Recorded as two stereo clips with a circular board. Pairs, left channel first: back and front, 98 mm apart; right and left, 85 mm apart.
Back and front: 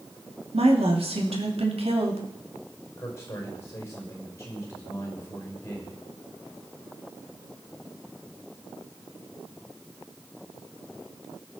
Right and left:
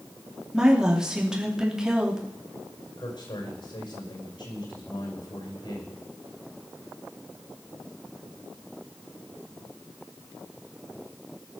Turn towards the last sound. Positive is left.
turn(degrees=-115)